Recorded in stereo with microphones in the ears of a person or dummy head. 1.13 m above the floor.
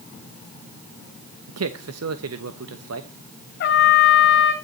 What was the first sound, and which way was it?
A man speaking, 80° right.